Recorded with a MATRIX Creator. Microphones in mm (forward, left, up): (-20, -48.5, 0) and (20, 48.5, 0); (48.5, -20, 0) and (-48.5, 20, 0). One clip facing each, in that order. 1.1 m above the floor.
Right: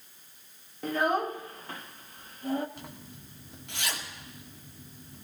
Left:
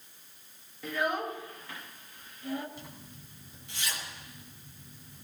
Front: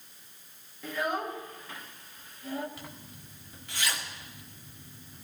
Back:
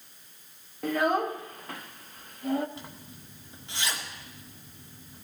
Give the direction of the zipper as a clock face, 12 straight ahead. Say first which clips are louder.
Right 2 dB, back 2 dB; 5 o'clock.